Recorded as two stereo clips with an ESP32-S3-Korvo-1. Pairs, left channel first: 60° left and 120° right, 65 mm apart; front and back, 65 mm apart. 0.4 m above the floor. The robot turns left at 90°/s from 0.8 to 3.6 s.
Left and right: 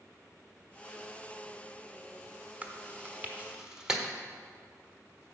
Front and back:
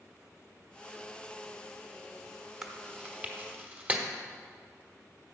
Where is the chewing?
100° right, 1.1 m; by 4.0 s 175° left, 1.1 m.